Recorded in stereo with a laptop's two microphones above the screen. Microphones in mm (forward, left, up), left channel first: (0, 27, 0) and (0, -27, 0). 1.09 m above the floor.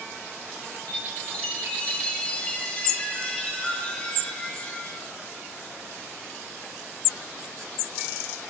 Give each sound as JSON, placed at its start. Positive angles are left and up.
{"t": 0.9, "sound": "a chime", "side_deg": 25, "distance_m": 1.5}